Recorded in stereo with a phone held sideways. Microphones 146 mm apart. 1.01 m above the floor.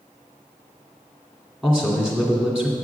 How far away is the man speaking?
About 2.5 m.